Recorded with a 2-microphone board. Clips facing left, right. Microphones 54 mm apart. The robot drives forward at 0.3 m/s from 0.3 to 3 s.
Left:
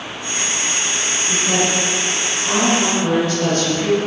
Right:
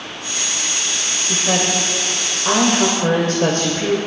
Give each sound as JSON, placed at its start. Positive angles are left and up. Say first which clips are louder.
{"t": 1.3, "sound": "a woman speaking", "louder": "even", "side_deg": -40, "distance_m": 2.0}